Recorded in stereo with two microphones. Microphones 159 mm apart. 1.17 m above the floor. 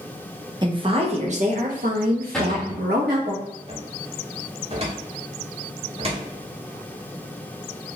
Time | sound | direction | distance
0.6 | a woman speaking | 30° right (ahead or behind) | 1.1 m
2.3 | a cupboard door | 5° left (ahead or behind) | 1.2 m
3.7 | a cupboard door | 35° right (ahead or behind) | 1.4 m